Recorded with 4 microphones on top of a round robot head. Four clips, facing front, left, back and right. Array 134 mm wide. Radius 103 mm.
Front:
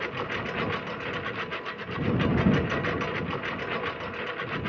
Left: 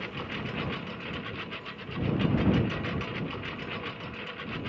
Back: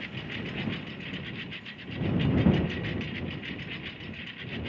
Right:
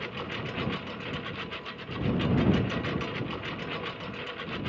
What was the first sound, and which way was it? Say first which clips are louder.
A lawn mower: right 1 dB, front 7 dB; 5° right.